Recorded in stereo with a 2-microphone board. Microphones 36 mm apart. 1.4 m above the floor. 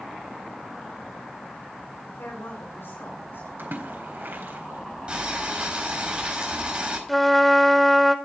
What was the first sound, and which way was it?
A woman speaking, 85° left.